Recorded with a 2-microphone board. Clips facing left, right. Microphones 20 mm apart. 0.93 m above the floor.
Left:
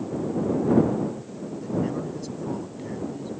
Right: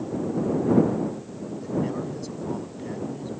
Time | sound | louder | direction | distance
1.6 | a man speaking | even | 5° right (ahead or behind) | ?